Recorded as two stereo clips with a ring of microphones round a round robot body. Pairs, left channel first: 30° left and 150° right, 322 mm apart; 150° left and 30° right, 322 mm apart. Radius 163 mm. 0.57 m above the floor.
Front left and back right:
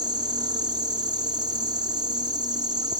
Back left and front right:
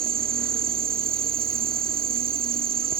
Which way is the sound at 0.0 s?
80° right.